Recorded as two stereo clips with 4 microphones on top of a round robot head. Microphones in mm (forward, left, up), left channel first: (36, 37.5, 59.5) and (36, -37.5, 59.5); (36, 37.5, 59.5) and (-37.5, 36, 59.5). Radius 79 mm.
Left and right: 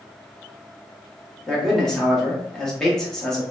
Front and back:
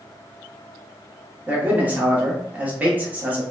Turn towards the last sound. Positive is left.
turn(degrees=160)